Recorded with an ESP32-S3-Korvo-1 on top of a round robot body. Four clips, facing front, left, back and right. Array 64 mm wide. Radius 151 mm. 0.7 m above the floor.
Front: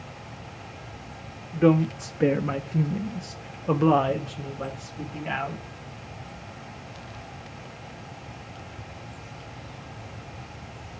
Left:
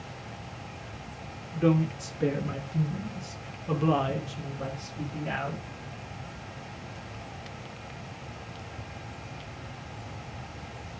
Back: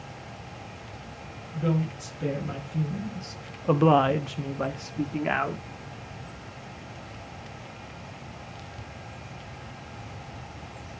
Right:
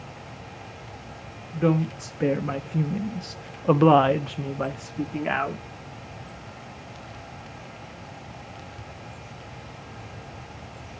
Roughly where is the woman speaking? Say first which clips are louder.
Right 2 dB, front 8 dB; ahead.